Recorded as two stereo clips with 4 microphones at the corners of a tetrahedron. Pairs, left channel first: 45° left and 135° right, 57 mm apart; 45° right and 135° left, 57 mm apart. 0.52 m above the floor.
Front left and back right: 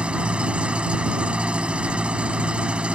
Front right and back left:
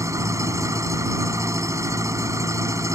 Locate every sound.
0.0 s an engine running: 155° left